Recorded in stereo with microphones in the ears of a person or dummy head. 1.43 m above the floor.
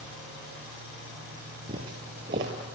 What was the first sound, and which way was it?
Footsteps, 25° right (ahead or behind).